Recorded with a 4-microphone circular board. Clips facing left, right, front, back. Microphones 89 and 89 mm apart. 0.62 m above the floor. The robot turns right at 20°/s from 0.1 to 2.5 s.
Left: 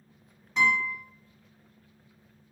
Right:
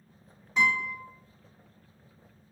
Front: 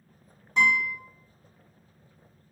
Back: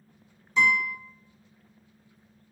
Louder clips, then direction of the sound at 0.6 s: Left 1 dB, even; 5° right.